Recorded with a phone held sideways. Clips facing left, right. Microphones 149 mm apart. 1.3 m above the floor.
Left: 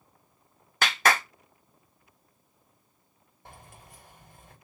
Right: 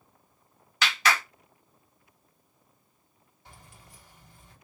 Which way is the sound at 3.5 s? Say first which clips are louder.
Left 4 dB; 55° left (ahead or behind).